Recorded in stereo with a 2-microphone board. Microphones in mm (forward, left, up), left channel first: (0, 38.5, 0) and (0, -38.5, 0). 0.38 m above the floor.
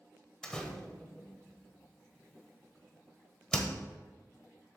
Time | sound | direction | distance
0.4 | a door slam | 15° left (ahead or behind) | 1.3 m